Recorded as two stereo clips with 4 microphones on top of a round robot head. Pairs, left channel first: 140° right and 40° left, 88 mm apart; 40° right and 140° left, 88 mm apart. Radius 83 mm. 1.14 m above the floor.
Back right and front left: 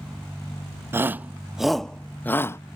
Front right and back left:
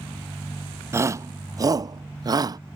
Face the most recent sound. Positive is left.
turn(degrees=170)